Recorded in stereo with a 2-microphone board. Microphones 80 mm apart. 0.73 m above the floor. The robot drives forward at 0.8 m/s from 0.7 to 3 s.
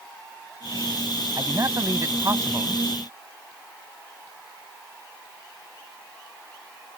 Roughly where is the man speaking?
Right.